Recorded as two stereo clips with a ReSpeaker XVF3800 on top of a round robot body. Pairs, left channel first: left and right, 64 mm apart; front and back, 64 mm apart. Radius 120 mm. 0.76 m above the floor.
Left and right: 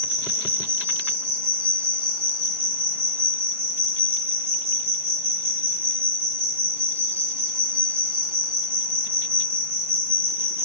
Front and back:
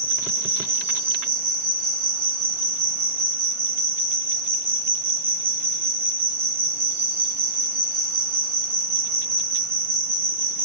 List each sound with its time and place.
0.0 s an insect: 140° right, 2 m